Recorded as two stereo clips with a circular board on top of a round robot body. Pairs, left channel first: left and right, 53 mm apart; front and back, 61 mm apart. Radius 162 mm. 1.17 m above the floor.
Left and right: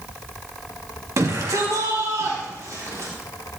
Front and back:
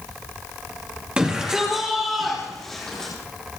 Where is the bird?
No bird in this recording.